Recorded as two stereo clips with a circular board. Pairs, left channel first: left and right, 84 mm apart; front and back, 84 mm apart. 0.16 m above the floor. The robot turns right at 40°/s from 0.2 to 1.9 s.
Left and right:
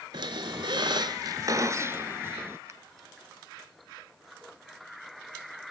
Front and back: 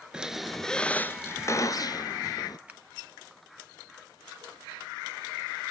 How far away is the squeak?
About 0.9 m.